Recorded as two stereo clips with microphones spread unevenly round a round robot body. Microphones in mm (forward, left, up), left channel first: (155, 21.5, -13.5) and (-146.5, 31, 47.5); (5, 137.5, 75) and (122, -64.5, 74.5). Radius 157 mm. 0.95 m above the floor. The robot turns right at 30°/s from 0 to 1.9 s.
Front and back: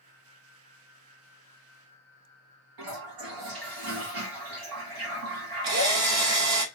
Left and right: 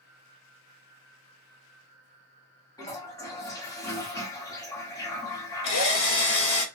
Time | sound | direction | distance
2.8 | a toilet flushing | 165° right | 0.9 m
5.6 | a drill | 145° left | 0.8 m